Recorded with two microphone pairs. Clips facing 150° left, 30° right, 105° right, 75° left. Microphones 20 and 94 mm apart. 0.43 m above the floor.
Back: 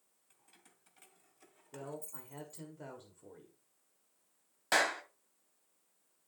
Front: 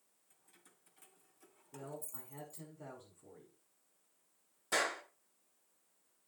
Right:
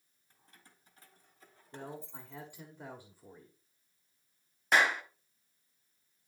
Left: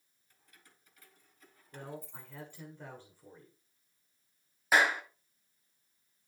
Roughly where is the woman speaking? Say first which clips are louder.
Back 3 dB, even; behind.